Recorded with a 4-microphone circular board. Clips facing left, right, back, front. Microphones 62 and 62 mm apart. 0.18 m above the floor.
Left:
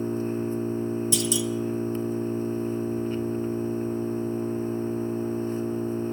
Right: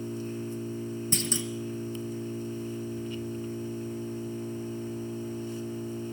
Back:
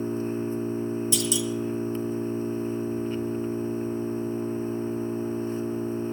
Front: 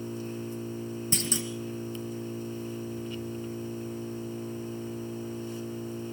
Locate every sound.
0.0 s an engine running: 135° left, 0.9 m
1.1 s a clunk: 45° right, 1.3 m